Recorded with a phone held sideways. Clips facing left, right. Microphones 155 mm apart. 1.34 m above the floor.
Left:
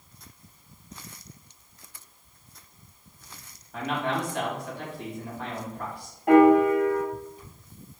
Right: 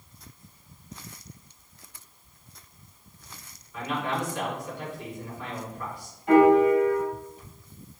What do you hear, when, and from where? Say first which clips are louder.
3.7 s a man speaking: left 1 dB; 80° left, 3.5 m
6.3 s a piano: left 1 dB; 65° left (ahead or behind), 2.0 m